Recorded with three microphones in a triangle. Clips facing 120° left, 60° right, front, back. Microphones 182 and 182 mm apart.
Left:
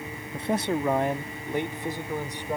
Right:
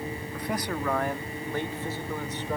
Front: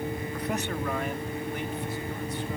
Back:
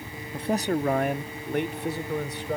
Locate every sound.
0.3 s a man speaking: 145° left; by 2.6 s 165° right